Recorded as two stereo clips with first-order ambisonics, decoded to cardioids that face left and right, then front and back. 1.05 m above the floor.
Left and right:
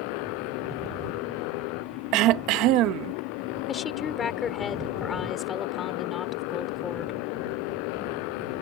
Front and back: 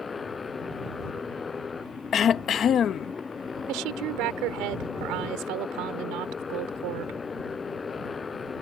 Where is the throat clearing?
60° right.